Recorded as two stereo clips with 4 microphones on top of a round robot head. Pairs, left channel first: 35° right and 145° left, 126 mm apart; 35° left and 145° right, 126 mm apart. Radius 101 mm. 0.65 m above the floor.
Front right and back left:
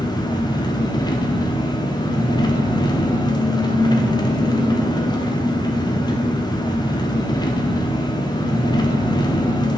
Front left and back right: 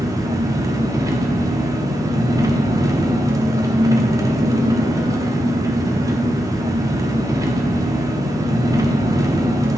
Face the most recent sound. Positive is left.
turn(degrees=-85)